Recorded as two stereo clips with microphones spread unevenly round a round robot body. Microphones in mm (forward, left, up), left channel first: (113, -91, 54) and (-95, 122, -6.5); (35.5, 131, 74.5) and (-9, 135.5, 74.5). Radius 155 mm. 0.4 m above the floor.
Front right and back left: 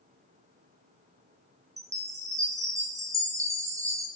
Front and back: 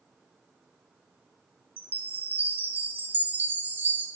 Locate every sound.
1.8 s a chime: 155° right, 1.2 m